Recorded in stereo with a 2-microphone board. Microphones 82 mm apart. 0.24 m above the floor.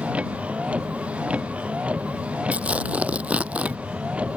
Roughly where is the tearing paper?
Centre.